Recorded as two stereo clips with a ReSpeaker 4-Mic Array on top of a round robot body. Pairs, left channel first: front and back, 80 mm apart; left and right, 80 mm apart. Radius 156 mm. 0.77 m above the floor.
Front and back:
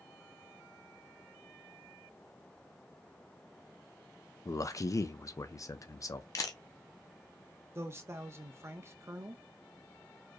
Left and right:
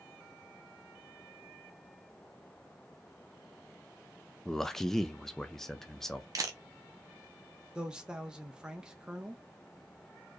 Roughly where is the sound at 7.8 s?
Behind.